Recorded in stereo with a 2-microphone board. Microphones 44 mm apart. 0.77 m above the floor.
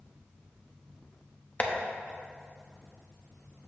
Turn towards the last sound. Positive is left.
turn(degrees=30)  # may be behind; listen again after turning